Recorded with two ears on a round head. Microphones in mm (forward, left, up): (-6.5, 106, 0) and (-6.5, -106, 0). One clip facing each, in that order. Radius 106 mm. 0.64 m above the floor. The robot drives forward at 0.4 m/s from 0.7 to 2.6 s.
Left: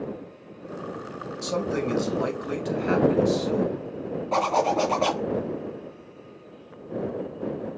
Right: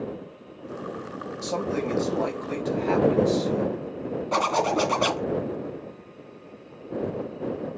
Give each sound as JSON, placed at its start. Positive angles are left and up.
{"t": 1.4, "sound": "a man speaking", "side_deg": 20, "distance_m": 2.5}
{"t": 4.3, "sound": "a zipper", "side_deg": -20, "distance_m": 2.5}